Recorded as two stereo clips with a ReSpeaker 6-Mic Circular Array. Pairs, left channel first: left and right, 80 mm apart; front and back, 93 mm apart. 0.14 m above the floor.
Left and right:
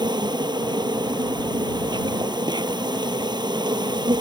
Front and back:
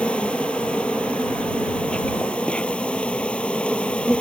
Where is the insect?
80° right.